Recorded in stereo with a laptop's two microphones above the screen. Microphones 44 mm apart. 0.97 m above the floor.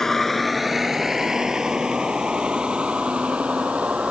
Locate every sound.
0.0 s a vehicle: 10° left (ahead or behind); by 4.1 s 25° right (ahead or behind)